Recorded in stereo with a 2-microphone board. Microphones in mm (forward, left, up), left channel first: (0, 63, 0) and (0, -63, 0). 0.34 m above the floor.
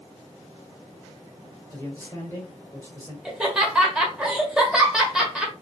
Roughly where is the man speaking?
Centre.